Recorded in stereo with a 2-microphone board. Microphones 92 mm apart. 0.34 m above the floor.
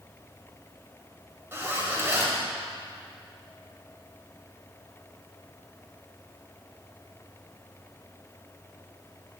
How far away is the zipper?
About 1.3 m.